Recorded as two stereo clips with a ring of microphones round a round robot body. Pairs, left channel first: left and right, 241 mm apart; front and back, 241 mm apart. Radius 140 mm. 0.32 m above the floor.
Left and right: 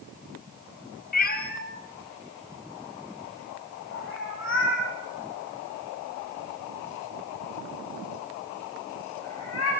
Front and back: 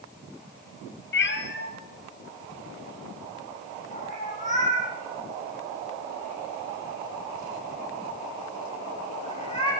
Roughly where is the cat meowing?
Ahead left.